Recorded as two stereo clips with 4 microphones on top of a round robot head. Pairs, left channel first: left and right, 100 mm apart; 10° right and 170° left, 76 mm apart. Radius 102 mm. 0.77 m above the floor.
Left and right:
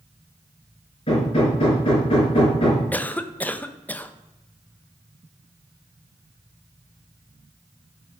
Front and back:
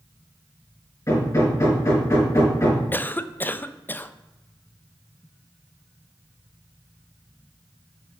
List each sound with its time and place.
1.1 s hammering: 45° left, 4.5 m
2.9 s a cough: 30° left, 0.7 m